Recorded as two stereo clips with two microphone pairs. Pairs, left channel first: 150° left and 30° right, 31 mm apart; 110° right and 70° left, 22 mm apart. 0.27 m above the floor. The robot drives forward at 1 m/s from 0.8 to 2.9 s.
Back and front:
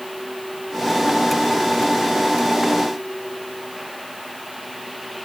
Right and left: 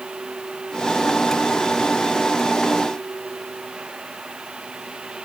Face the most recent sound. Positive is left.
No sound to turn to.